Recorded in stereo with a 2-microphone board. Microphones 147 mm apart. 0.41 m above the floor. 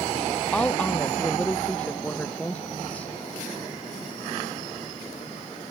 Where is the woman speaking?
10° left (ahead or behind).